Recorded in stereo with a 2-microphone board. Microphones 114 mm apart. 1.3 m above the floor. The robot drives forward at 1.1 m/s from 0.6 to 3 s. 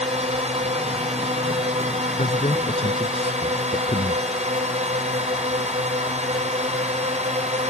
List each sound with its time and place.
0.0 s a drone: 70° right (ahead or behind); by 7.7 s 75° right (ahead or behind)
2.2 s a man speaking: 70° left (ahead or behind)